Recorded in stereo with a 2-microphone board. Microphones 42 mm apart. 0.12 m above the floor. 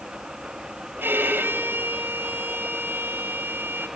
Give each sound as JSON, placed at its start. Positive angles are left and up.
{"t": 1.0, "sound": "a violin", "side_deg": -55, "distance_m": 2.5}